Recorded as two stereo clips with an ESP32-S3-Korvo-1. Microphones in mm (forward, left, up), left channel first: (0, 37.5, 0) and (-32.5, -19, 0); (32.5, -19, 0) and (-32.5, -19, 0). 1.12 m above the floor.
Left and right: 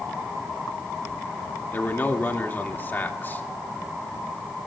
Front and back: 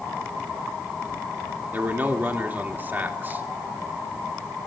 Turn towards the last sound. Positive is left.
turn(degrees=120)